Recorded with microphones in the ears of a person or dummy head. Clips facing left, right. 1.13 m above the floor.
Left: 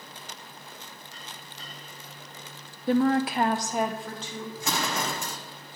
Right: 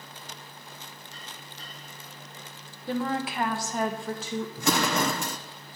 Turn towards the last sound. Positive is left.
turn(degrees=-55)  # may be behind; listen again after turning